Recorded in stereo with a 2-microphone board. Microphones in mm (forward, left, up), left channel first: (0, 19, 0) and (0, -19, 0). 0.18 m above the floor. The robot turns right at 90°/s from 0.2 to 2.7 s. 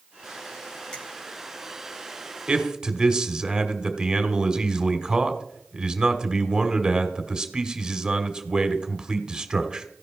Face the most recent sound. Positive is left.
turn(degrees=-20)  # may be behind; listen again after turning